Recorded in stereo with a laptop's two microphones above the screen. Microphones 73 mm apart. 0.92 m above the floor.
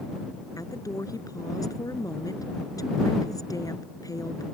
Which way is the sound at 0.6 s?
55° left (ahead or behind).